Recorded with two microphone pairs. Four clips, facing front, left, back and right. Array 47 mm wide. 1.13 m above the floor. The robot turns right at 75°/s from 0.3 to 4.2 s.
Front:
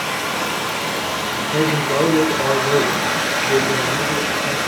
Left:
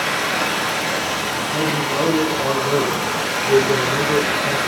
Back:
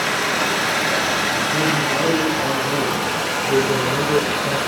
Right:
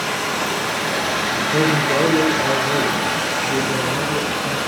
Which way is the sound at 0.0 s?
135° left.